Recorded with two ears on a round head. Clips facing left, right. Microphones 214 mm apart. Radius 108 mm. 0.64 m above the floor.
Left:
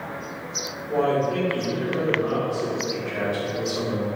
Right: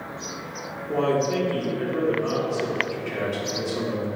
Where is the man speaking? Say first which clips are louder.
Even; 45° right (ahead or behind), 1.8 m.